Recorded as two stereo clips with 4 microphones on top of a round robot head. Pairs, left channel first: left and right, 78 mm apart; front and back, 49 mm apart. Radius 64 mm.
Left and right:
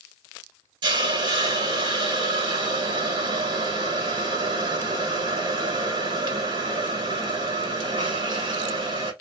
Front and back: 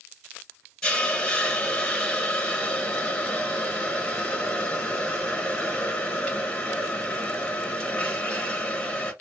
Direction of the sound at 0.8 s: 75° right.